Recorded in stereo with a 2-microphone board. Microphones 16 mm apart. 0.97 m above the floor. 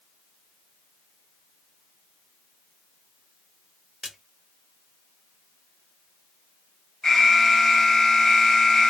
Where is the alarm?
40° left (ahead or behind), 1.9 m.